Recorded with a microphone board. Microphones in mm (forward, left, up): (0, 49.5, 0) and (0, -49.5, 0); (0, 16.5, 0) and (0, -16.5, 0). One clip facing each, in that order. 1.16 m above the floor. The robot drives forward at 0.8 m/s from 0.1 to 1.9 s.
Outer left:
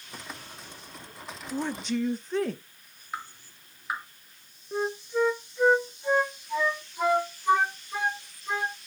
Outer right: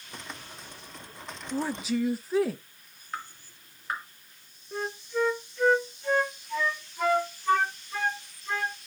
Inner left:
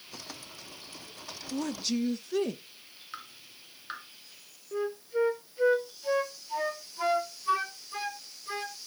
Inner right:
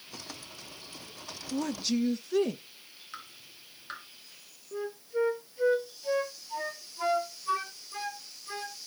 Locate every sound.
1.5 s a woman speaking: 5° right (ahead or behind), 0.6 m
3.1 s dripping: 10° left (ahead or behind), 2.5 m
4.7 s a flute: 15° left (ahead or behind), 0.7 m